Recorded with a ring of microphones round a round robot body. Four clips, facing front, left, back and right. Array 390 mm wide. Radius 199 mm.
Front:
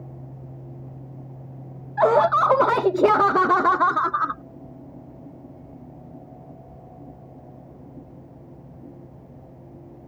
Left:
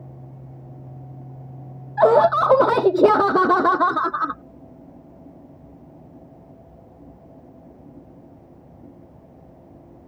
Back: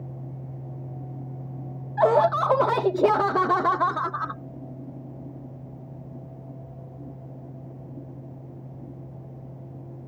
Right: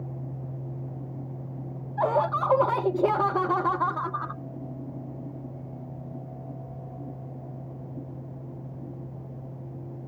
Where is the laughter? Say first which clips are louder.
Left 10 dB, front 2 dB; 75° left.